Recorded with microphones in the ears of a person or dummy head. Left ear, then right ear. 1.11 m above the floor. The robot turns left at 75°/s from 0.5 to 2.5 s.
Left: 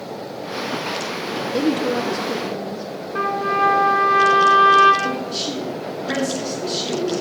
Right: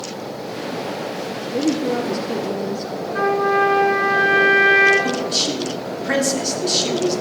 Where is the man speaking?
20° right (ahead or behind), 2.5 m.